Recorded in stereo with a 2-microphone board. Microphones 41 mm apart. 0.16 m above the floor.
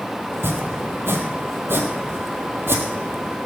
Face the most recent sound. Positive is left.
turn(degrees=-70)  # may be behind; listen again after turning